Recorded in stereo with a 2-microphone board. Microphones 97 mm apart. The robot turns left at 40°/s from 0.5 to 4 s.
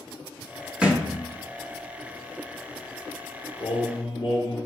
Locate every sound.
0.8 s a thud: 10° right (ahead or behind), 0.7 m; by 1.1 s 20° right (ahead or behind), 0.7 m
3.6 s singing: 70° left (ahead or behind), 1.9 m; by 4.6 s 55° left (ahead or behind), 1.9 m